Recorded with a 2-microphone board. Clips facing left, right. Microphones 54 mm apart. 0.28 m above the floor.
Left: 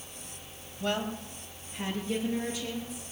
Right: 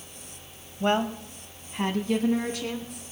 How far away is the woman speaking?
About 1.3 m.